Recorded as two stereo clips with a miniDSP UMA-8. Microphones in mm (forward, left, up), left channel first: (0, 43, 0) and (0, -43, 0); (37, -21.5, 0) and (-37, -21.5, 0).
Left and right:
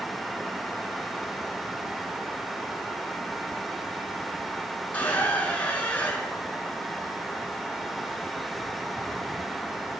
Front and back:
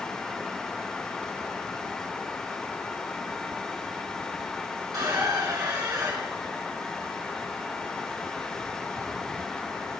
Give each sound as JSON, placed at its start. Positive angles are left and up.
{"t": 4.9, "sound": "a squeak", "azimuth_deg": 160, "distance_m": 2.0}